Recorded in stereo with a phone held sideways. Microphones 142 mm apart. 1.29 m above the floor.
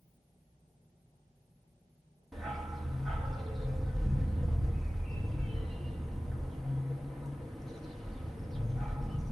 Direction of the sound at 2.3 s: Centre (ahead or behind).